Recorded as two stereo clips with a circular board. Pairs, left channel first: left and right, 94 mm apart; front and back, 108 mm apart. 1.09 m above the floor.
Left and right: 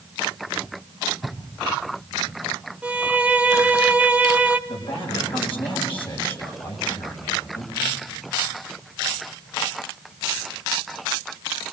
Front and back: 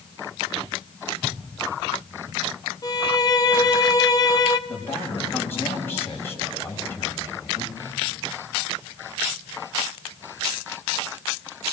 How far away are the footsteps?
About 7.5 m.